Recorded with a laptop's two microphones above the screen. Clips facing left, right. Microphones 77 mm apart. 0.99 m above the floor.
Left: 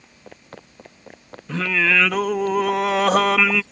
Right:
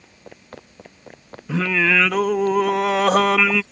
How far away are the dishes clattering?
I don't hear dishes clattering.